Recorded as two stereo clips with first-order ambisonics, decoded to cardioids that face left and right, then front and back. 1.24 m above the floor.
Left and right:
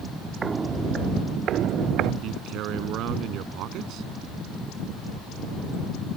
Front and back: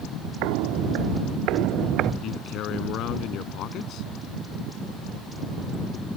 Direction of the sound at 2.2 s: 45° right.